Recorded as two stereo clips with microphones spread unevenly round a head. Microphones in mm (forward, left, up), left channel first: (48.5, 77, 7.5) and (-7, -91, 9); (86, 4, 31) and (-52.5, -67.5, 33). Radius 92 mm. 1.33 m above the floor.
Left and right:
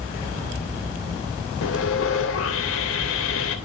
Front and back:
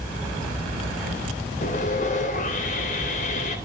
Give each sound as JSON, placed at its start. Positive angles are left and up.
{"t": 1.6, "sound": "sawing", "azimuth_deg": 75, "distance_m": 3.0}